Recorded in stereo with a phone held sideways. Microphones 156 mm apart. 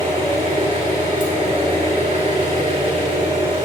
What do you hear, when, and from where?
0.0 s an engine running: 35° right (ahead or behind), 4 m